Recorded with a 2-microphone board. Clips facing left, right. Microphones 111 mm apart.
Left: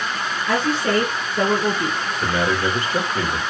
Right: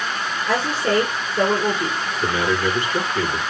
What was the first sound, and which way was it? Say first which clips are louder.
A woman speaking: left 1 dB; 5° right (ahead or behind).